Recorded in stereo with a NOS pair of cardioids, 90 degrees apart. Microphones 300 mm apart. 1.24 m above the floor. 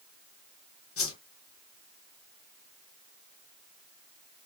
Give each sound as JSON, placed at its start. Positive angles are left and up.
{"t": 1.0, "sound": "a whoosh", "azimuth_deg": 45, "distance_m": 1.1}